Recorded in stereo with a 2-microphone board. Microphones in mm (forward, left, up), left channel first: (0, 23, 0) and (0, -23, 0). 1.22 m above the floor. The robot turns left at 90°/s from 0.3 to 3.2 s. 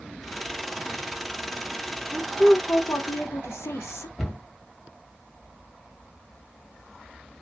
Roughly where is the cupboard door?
Centre.